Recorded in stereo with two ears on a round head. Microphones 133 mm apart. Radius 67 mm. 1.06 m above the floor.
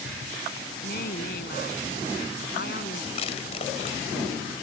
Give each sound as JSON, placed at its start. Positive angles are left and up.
{"t": 0.8, "sound": "a woman speaking", "side_deg": 60}
{"t": 3.1, "sound": "crushing", "side_deg": 40}